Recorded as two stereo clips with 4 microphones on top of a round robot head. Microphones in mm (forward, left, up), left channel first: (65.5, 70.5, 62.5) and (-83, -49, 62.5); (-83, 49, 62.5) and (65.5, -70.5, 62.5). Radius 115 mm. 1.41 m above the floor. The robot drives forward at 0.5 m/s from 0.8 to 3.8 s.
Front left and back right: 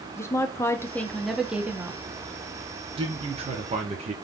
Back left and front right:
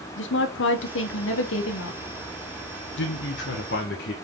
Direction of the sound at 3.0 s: 155° left.